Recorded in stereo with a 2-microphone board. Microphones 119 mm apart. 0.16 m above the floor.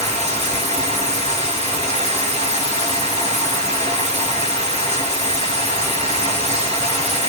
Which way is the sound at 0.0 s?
60° right (ahead or behind).